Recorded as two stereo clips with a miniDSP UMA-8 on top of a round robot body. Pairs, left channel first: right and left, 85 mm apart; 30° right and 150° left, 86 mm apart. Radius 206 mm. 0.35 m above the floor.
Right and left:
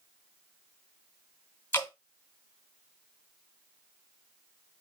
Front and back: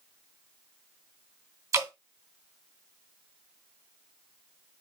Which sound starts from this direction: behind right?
Dripping, at 1.7 s.